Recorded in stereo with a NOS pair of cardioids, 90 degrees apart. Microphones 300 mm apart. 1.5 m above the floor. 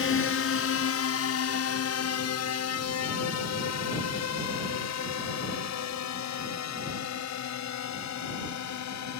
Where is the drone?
50° left; by 9.2 s 65° left.